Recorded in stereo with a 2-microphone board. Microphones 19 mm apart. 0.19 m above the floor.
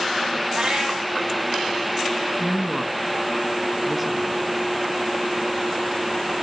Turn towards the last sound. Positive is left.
turn(degrees=-5)  # may be behind; listen again after turning